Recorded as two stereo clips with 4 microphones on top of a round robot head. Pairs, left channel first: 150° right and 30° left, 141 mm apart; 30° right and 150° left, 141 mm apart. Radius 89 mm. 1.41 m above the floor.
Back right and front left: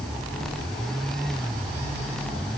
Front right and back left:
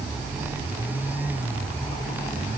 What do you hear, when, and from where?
Only background noise.